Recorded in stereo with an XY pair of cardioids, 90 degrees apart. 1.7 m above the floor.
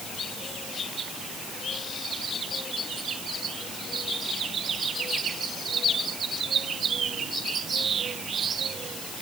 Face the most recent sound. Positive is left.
No sound to turn to.